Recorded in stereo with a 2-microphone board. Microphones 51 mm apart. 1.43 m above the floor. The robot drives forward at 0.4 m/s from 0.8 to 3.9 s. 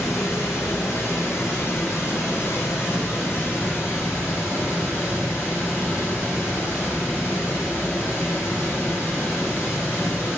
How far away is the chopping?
No chopping in this recording.